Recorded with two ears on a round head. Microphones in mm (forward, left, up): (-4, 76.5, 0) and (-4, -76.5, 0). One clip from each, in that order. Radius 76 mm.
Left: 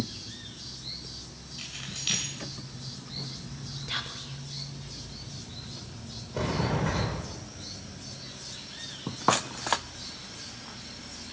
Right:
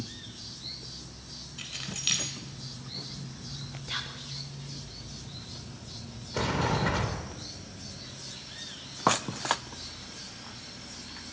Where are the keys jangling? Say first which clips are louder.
Right 1 dB; 20° right (ahead or behind), 3.5 m.